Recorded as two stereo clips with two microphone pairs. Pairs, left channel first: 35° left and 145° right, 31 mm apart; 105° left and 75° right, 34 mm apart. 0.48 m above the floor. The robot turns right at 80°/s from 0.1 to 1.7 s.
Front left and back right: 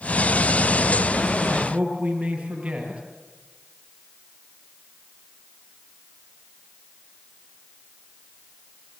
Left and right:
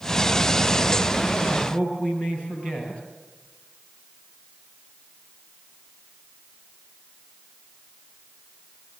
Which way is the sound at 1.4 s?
135° left.